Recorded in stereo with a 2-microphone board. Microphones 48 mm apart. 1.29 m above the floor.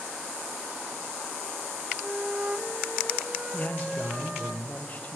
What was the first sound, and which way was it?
A flute, 30° right (ahead or behind).